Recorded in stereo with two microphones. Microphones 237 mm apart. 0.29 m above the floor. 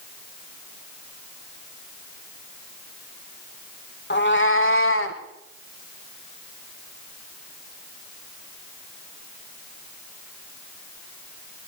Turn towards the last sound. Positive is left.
turn(degrees=65)  # may be behind; listen again after turning